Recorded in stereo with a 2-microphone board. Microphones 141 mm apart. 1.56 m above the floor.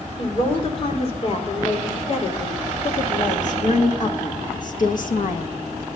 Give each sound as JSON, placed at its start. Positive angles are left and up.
{"t": 0.2, "sound": "a woman speaking", "side_deg": 45, "distance_m": 4.0}